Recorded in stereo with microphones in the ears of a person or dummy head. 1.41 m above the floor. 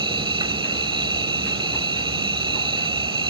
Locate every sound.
0.0 s an insect: 30° right (ahead or behind)